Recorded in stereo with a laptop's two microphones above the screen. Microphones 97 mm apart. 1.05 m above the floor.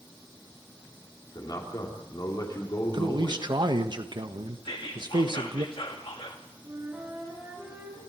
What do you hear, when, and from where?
1.4 s a man speaking: 45° left (ahead or behind), 3.5 m
2.9 s a man speaking: 55° right (ahead or behind), 1.4 m
4.7 s whispering: 70° left (ahead or behind), 2 m
6.6 s a flute: 25° right (ahead or behind), 9.5 m